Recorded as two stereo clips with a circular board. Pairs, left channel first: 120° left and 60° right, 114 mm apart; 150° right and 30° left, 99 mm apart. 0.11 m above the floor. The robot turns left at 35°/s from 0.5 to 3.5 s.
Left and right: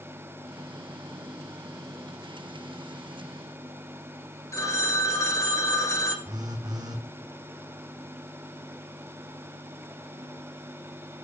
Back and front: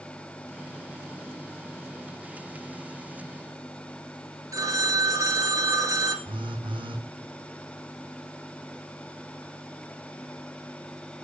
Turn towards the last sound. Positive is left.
turn(degrees=-5)